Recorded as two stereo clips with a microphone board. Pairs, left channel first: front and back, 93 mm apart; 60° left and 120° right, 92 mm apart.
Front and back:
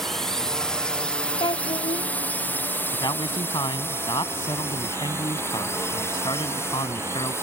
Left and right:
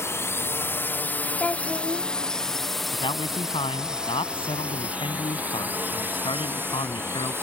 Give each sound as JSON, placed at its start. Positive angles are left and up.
{"t": 0.0, "sound": "a drone", "azimuth_deg": 85}
{"t": 1.4, "sound": "a child speaking", "azimuth_deg": -10}
{"t": 2.9, "sound": "a man speaking", "azimuth_deg": 40}